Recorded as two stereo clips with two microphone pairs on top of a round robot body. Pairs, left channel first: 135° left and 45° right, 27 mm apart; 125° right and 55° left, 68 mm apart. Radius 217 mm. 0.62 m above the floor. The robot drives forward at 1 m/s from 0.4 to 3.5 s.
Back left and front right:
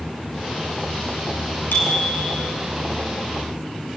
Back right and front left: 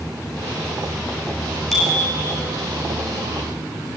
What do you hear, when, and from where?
1.7 s a bicycle bell: 140° left, 6.5 m; by 2.4 s 145° left, 7 m